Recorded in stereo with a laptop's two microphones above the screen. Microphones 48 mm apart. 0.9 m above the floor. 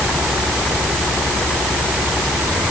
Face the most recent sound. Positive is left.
No sound to turn to.